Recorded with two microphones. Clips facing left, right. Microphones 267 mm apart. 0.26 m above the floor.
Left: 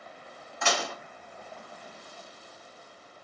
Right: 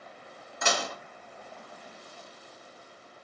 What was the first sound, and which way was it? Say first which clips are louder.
Dishes clattering: even; 40° right (ahead or behind).